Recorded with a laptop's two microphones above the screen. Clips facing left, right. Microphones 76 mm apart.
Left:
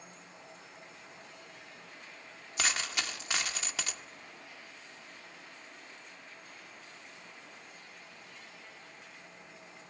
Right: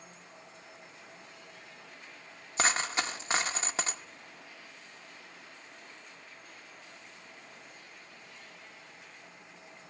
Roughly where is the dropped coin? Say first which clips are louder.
Right 5 dB; right.